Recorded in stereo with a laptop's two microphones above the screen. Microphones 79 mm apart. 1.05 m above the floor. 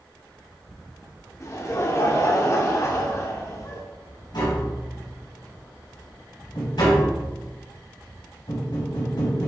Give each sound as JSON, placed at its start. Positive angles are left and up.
{"t": 1.4, "sound": "laughter", "side_deg": 40, "distance_m": 2.5}
{"t": 4.3, "sound": "tapping", "side_deg": 65, "distance_m": 3.0}